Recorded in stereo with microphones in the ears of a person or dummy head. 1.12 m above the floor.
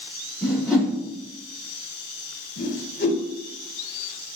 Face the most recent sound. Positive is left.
turn(degrees=50)  # may be behind; listen again after turning